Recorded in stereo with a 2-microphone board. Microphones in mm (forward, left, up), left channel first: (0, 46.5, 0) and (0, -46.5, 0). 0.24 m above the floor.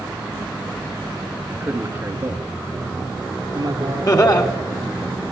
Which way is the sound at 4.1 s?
50° left (ahead or behind).